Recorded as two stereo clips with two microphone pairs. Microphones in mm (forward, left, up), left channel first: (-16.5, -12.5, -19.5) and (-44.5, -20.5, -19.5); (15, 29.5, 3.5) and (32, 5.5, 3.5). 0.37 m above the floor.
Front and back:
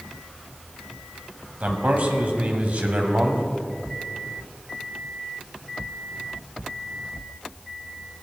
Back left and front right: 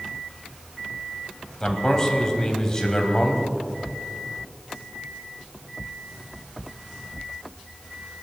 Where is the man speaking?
170° right, 2.5 m.